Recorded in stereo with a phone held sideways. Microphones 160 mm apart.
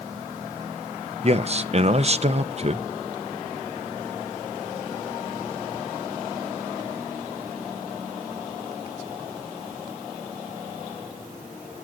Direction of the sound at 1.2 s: 45° right (ahead or behind).